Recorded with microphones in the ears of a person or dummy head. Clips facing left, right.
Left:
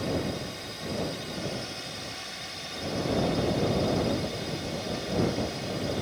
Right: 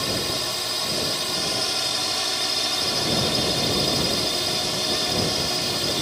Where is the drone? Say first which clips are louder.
Right 1 dB; 75° right (ahead or behind).